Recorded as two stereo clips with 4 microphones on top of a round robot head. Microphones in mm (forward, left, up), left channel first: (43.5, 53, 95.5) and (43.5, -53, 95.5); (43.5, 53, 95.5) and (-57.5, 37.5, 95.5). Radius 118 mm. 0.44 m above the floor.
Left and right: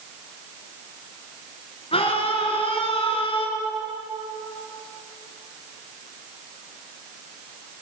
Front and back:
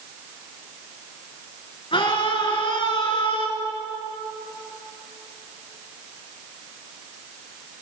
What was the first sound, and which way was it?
A scream, 50° left.